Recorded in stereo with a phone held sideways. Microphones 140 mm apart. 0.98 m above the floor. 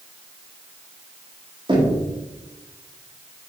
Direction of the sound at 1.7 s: 35° right (ahead or behind).